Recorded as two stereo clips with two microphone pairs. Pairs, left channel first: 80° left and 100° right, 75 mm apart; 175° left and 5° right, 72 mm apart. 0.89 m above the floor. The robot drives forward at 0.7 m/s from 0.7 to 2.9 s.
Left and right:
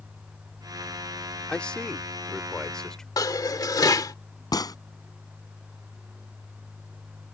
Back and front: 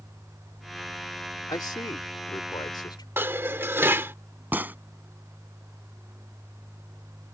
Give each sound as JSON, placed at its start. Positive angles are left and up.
{"t": 1.5, "sound": "a man speaking", "azimuth_deg": 160}
{"t": 3.2, "sound": "dishes clattering", "azimuth_deg": 50}
{"t": 4.5, "sound": "a gunshot", "azimuth_deg": 55}